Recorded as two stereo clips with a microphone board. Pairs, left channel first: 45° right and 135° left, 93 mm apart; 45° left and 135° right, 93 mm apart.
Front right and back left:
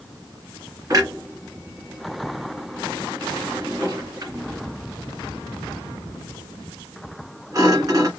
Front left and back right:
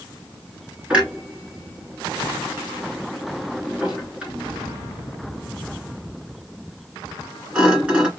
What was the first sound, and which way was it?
A clunk, 150° left.